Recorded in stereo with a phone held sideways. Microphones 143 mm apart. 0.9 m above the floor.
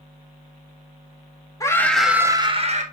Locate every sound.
1.6 s a scream: 25° left (ahead or behind), 1.5 m; by 2.8 s 55° right (ahead or behind), 1.5 m